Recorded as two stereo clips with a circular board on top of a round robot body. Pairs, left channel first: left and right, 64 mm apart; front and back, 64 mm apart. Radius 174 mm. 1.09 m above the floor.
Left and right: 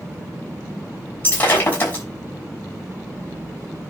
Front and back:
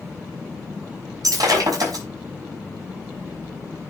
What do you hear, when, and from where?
1.2 s breaking glass: 150° left, 5.5 m